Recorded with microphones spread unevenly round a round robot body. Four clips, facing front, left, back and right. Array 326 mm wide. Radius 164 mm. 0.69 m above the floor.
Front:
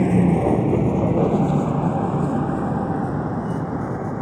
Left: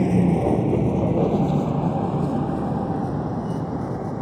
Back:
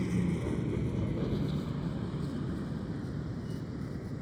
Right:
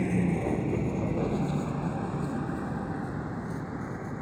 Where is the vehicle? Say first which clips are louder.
Left 8 dB, front 15 dB; 25° left; by 4.2 s 30° left.